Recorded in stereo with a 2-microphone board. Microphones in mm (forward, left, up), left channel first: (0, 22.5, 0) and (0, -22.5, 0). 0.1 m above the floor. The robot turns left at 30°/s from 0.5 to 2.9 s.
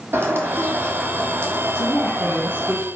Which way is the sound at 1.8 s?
10° left.